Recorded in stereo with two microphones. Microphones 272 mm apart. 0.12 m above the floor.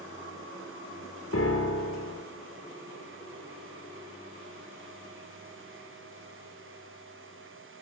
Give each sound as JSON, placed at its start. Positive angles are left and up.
{"t": 1.3, "sound": "a piano", "side_deg": 60, "distance_m": 1.4}